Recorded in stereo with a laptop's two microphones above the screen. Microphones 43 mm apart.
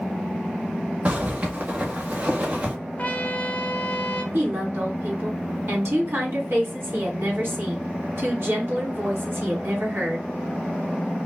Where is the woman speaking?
65° right (ahead or behind), 2 m.